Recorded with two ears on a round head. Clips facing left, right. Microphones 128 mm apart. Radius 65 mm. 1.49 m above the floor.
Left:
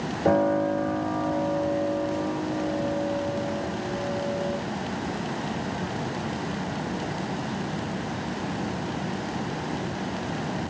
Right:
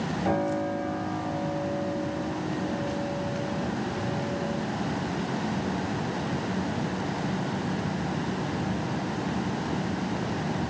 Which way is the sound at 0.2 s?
50° left (ahead or behind).